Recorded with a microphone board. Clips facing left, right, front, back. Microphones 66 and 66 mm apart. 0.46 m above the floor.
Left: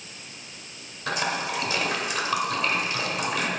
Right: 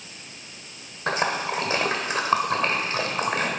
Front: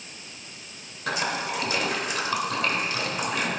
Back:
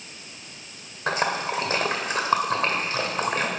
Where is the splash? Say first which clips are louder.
Right 3 dB, back 3 dB; 135° right, 1.5 m.